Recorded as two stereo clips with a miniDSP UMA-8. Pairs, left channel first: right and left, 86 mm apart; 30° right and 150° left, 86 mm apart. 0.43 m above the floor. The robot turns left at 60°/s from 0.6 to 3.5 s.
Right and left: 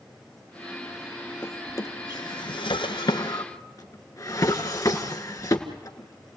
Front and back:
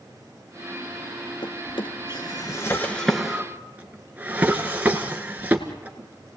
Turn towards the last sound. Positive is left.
turn(degrees=-140)